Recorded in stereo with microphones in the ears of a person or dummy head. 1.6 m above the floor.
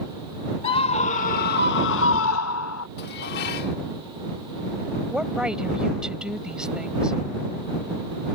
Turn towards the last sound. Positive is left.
turn(degrees=-5)  # may be behind; listen again after turning